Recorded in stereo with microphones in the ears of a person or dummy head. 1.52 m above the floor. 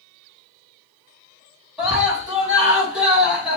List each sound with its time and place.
1.8 s a scream: 5° right (ahead or behind), 3 m